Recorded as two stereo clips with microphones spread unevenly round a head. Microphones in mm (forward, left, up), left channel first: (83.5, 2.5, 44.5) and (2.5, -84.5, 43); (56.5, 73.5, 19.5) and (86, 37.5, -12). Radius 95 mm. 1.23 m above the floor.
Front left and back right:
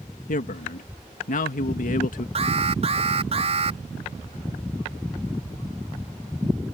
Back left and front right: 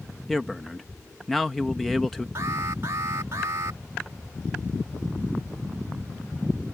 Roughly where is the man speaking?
Ahead left.